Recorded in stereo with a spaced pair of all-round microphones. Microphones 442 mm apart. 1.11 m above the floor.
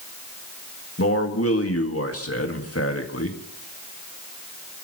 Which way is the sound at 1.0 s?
30° left (ahead or behind).